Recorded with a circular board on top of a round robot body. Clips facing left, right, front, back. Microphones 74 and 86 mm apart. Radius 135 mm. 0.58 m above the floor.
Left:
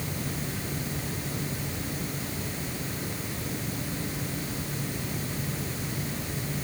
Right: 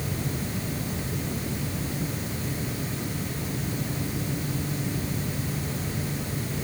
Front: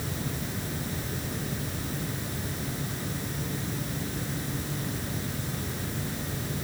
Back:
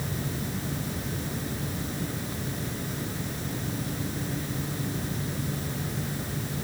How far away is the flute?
No flute in this recording.